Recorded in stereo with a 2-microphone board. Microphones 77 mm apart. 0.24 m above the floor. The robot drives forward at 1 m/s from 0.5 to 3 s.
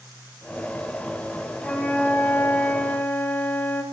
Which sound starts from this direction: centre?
A flute, at 1.6 s.